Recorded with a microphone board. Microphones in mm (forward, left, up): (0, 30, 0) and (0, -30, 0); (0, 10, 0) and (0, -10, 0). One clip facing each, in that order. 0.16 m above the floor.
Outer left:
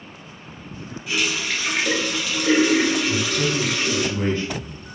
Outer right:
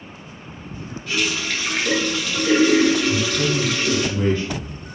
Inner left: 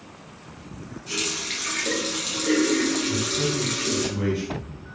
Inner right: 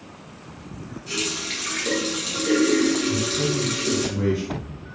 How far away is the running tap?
About 1.4 m.